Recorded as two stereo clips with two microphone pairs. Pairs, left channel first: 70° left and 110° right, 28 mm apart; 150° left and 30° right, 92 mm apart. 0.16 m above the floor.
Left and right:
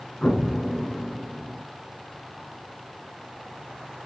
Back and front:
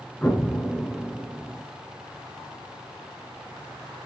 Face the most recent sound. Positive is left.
turn(degrees=80)